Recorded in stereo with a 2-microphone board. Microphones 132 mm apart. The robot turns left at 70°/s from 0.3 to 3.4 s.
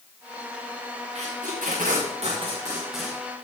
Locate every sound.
1.1 s tape being pulled: 50° right (ahead or behind), 3.5 m; by 3.2 s 10° left (ahead or behind), 3.5 m